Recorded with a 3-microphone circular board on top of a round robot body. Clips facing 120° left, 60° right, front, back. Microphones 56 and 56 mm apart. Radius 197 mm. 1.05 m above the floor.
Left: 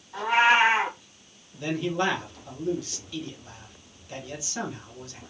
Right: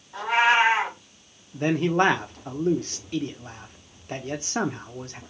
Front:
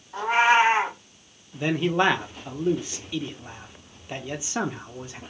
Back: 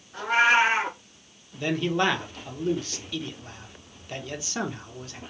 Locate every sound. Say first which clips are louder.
0.1 s a cat meowing: even, front 1 dB; 35° left, 2 m
1.5 s a man speaking: right 6 dB, front 2 dB; 65° right, 0.9 m